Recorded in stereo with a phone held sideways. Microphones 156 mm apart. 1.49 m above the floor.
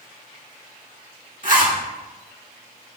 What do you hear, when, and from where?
1.4 s a zipper: 55° right (ahead or behind), 2 m